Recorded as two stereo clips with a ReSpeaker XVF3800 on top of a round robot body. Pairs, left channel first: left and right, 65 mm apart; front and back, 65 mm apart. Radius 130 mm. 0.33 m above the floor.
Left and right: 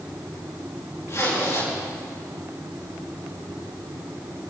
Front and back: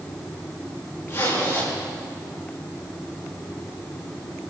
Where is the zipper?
50° left, 6.5 m.